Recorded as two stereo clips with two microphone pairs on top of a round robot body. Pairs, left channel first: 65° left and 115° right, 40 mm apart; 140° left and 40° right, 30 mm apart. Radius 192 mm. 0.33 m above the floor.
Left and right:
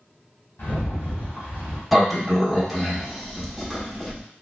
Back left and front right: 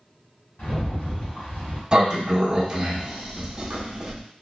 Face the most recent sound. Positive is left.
turn(degrees=-5)